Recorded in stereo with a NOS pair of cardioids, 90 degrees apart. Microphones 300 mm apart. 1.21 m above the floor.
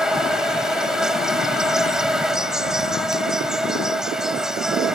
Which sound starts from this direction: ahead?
An insect, at 0.0 s.